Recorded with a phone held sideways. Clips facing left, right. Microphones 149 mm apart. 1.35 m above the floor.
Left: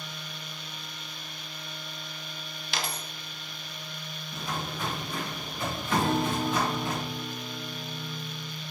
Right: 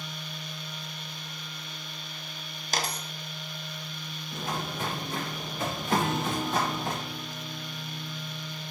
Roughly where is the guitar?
Left.